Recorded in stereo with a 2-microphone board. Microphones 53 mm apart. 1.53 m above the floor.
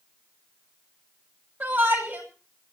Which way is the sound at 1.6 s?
40° right (ahead or behind).